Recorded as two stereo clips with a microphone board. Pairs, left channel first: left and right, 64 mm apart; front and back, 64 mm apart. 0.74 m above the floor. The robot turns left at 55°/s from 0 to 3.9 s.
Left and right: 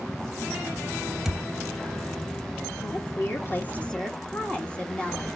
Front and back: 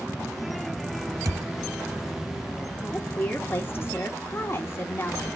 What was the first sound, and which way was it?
A thud, 175° right.